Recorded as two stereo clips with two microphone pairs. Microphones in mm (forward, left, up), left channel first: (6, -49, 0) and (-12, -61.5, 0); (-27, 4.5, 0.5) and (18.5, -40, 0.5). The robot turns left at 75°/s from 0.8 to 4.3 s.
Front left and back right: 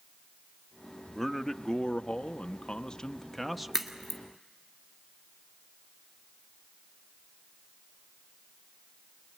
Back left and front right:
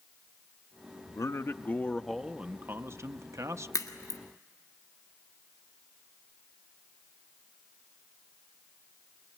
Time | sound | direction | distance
1.1 | a man speaking | 125° left | 0.8 m
3.7 | a crack | 145° left | 1.9 m